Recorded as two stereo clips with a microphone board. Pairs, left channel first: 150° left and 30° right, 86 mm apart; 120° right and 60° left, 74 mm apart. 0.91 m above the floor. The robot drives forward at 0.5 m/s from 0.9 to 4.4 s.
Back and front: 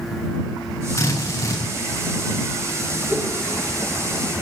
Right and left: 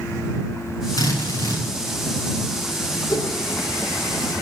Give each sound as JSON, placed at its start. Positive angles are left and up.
{"t": 1.0, "sound": "a drill", "azimuth_deg": -160, "distance_m": 8.5}
{"t": 3.1, "sound": "a whoosh", "azimuth_deg": -95, "distance_m": 3.5}